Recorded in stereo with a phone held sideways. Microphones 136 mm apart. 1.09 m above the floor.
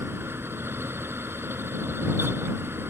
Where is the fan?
15° right (ahead or behind).